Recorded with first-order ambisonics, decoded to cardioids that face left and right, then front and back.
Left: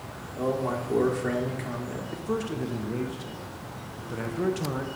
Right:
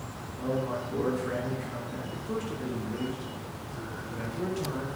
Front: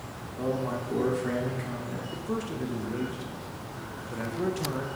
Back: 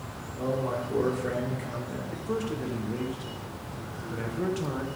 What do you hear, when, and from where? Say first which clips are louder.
0.3 s a man speaking: left 3 dB, back 1 dB; 80° left, 1.9 m
2.1 s a man speaking: left 5 dB, back 3 dB; 95° left, 0.6 m